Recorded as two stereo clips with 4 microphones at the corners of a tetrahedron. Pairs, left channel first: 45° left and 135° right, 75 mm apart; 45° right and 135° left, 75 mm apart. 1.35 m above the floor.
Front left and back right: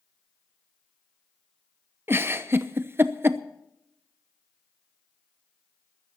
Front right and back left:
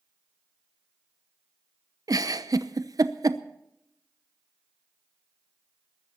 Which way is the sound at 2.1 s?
165° left.